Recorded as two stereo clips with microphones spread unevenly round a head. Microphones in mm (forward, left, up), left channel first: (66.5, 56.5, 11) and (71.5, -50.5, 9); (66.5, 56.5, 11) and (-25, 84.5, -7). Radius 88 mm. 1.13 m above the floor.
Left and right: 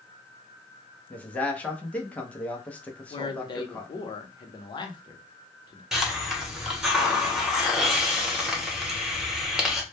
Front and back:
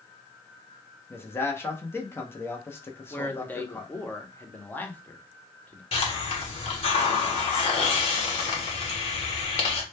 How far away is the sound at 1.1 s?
About 0.6 m.